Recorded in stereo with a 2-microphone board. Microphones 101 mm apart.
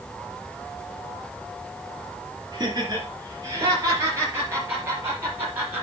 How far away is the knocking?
No knocking in this recording.